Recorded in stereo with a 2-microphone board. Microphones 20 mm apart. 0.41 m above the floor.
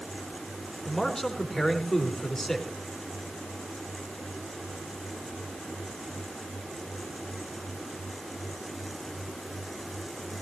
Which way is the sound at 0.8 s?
15° left (ahead or behind).